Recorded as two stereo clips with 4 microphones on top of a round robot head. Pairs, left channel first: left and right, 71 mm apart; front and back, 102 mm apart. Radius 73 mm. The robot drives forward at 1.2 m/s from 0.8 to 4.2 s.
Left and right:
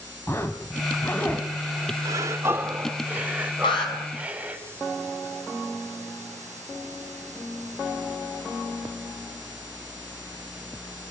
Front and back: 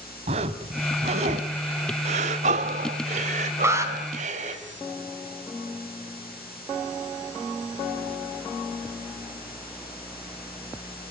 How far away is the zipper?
About 1.7 m.